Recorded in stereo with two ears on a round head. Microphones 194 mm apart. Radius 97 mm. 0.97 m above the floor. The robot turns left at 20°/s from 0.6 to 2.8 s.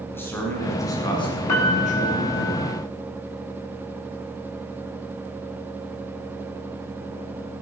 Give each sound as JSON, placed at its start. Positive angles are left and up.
{"t": 0.1, "sound": "a man speaking", "azimuth_deg": 170, "distance_m": 9.0}
{"t": 1.5, "sound": "a piano", "side_deg": 85, "distance_m": 8.0}